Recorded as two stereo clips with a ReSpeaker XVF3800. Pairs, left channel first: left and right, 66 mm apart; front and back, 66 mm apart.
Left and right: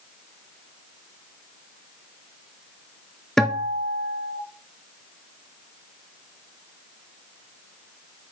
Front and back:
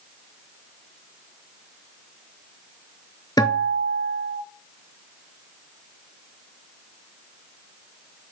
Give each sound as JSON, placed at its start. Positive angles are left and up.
{"t": 3.4, "sound": "a guitar", "azimuth_deg": 5, "distance_m": 1.1}